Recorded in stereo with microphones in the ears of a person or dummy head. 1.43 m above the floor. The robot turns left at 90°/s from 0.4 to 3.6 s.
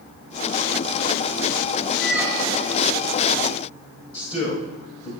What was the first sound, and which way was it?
A squeak, 5° left.